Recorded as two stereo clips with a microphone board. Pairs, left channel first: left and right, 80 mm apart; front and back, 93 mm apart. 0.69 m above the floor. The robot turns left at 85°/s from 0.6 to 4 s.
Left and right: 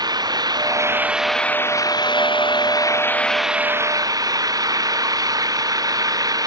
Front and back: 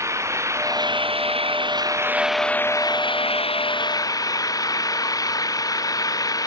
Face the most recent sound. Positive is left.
turn(degrees=-50)